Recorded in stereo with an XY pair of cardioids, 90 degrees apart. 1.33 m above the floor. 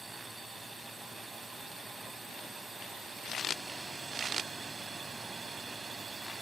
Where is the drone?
30° right; by 6.4 s 50° right.